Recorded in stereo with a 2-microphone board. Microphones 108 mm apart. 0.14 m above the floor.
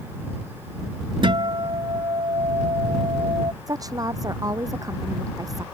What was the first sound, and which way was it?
A guitar, 50° right (ahead or behind).